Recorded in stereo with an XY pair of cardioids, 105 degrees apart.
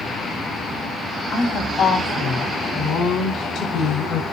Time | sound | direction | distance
1.3 | a woman speaking | 60° left | 3 m